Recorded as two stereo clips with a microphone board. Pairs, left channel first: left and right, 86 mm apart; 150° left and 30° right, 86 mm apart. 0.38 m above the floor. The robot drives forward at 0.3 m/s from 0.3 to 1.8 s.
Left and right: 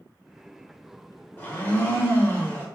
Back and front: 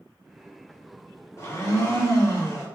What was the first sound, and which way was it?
A blender, 135° left.